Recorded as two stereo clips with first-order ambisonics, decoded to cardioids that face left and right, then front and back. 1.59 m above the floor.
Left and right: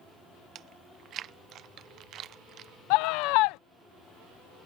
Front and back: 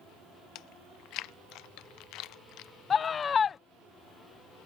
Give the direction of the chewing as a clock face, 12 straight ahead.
1 o'clock.